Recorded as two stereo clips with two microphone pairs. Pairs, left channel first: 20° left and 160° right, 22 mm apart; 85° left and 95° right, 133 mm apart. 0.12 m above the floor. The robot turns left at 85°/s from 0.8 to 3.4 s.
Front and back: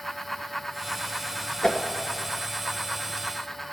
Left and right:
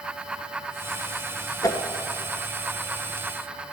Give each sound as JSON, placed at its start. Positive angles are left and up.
{"t": 1.6, "sound": "a whoosh", "azimuth_deg": 40, "distance_m": 1.1}